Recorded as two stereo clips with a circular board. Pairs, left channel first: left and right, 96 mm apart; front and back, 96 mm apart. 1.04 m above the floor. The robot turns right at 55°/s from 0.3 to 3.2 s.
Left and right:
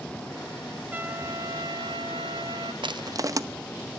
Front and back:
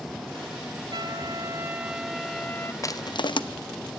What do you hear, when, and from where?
0.9 s a trumpet: 160° right, 1.0 m; by 2.7 s 60° right, 1.0 m
2.8 s crushing: 55° right, 0.8 m; by 3.4 s 35° right, 0.8 m